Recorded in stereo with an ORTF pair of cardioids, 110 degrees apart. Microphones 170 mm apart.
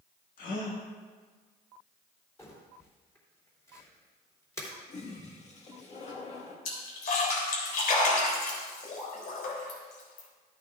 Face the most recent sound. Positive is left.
turn(degrees=60)